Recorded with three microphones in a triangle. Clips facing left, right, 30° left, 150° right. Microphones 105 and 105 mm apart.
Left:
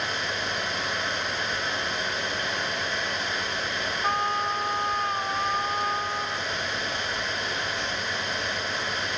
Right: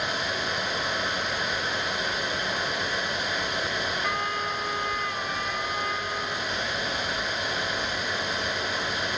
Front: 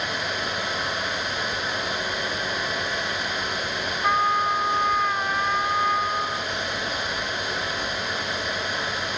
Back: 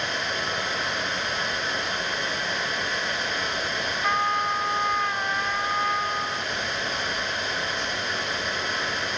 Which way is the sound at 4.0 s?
105° left.